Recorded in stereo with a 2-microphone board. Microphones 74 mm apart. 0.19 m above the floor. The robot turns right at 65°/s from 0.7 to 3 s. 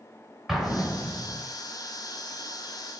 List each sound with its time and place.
0.5 s an explosion: 5° right (ahead or behind), 0.8 m; by 1.4 s 15° left (ahead or behind), 0.8 m